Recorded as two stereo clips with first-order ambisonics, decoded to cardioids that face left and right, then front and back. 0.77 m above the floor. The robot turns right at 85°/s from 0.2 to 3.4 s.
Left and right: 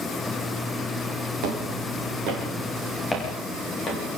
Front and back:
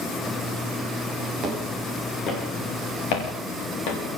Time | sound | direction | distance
1.4 | footsteps | 115° right | 5 m